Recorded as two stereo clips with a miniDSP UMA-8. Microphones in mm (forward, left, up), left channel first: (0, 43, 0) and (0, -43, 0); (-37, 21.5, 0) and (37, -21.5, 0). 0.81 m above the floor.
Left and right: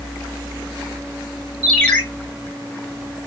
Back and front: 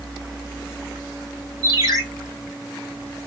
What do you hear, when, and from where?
1.6 s a ringtone: 10° left, 1.8 m